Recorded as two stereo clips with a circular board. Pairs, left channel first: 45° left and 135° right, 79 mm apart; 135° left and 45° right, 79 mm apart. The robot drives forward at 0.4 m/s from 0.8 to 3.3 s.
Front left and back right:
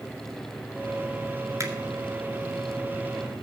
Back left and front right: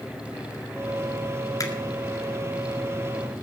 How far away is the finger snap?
About 1.9 m.